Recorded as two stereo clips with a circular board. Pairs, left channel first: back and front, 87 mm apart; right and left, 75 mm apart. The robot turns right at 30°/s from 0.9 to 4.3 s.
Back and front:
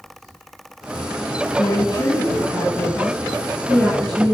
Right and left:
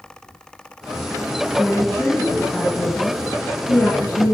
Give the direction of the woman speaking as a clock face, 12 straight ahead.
6 o'clock.